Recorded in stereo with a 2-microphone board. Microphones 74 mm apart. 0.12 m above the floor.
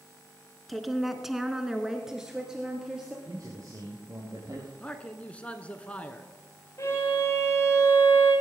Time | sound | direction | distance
0.7 | a woman speaking | centre (ahead or behind) | 1.4 m
3.2 | a man speaking | 50° right (ahead or behind) | 3.5 m
4.8 | a man speaking | 15° left (ahead or behind) | 1.2 m
6.8 | a violin | 40° left (ahead or behind) | 9.5 m